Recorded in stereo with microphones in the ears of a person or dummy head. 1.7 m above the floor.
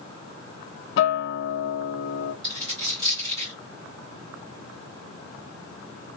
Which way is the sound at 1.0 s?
70° left (ahead or behind).